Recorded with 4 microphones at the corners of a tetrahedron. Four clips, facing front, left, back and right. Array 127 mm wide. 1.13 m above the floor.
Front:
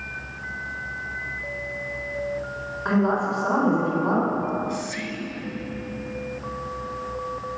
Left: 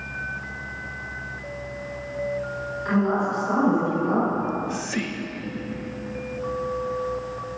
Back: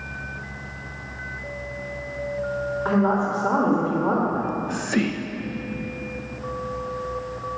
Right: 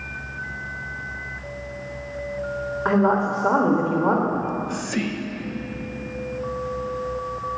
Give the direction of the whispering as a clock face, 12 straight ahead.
6 o'clock.